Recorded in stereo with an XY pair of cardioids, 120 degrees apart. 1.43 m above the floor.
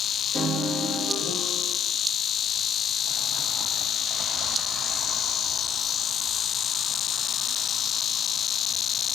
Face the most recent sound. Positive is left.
turn(degrees=-45)